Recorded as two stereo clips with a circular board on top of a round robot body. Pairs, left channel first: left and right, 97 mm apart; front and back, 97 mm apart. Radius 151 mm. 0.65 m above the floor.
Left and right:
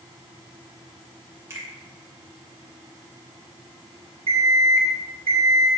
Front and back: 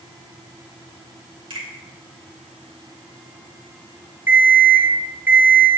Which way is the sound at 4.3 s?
105° right.